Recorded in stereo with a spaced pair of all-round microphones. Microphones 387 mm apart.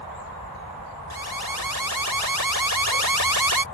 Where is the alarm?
65° right (ahead or behind).